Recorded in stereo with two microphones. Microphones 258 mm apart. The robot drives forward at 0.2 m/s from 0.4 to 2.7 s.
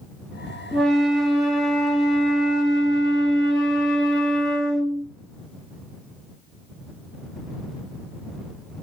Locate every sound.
0.7 s a flute: centre (ahead or behind), 0.8 m